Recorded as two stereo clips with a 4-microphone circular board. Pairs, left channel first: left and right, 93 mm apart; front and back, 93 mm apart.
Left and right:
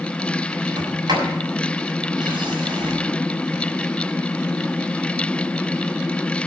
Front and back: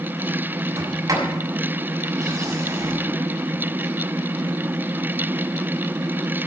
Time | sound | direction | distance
0.8 | a sliding door | 130° right | 6 m